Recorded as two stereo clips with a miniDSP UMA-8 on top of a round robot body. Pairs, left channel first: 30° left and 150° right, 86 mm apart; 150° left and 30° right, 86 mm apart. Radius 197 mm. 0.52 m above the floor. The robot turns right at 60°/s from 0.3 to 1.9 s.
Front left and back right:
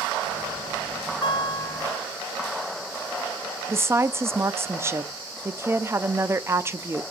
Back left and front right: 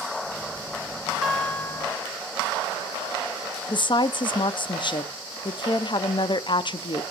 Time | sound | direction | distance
1.2 | a guitar | 55° left | 1.6 m
3.7 | a woman speaking | 155° left | 1.1 m